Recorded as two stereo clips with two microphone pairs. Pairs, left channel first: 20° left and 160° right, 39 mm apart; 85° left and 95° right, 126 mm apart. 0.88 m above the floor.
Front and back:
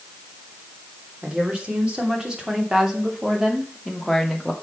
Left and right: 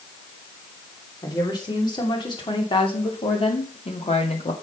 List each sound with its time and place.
1.2 s a woman speaking: 140° left, 3 m; by 4.5 s 110° left, 2 m